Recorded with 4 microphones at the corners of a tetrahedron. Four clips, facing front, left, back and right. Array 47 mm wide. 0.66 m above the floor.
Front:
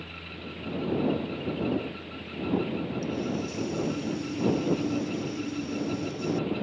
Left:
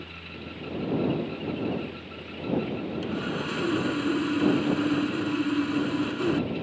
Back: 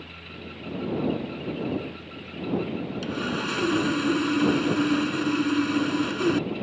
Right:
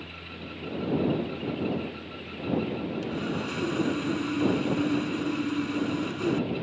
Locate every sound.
3.0 s sawing: 170° left